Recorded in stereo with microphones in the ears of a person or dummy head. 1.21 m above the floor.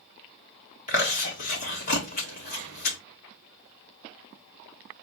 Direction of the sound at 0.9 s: 45° left (ahead or behind).